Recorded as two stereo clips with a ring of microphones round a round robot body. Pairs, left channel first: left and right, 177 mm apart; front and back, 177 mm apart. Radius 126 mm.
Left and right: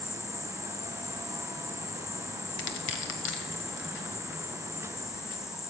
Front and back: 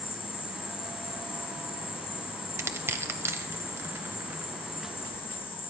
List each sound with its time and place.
0.0 s an insect: 30° left, 1.3 m
2.6 s crushing: 105° left, 1.3 m